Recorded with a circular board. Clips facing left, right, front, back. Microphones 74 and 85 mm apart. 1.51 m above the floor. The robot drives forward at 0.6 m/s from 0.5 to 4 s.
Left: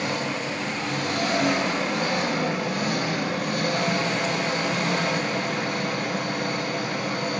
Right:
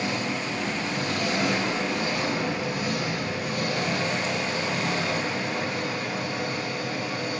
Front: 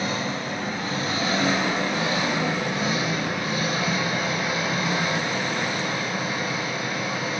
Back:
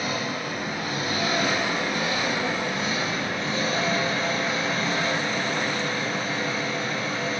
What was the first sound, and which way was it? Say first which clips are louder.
An engine running: left 1 dB, front 1 dB; 60° left.